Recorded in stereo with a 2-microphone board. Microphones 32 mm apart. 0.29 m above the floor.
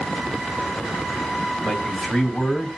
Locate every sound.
1.6 s a man speaking: 35° left (ahead or behind), 1.4 m; by 2.7 s 25° left (ahead or behind), 1.8 m